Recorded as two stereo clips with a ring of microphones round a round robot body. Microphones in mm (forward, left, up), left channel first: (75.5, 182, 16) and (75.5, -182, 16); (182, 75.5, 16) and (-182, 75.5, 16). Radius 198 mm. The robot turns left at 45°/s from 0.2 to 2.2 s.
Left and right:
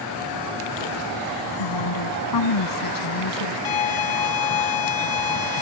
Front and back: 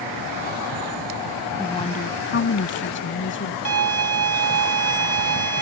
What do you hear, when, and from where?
1.6 s a woman speaking: 85° left; by 3.5 s 60° left
3.6 s a violin: 130° left